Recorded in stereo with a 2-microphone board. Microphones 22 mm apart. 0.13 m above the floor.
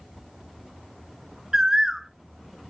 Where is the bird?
30° right (ahead or behind), 0.8 m.